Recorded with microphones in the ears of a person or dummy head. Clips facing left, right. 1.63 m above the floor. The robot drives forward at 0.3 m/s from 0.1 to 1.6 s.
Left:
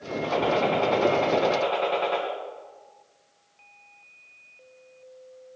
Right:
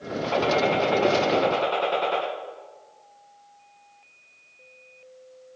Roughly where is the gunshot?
Centre.